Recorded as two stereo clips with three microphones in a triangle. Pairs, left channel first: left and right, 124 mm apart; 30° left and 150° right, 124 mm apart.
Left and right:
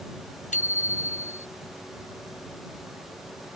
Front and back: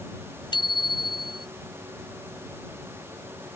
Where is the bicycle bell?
85° left.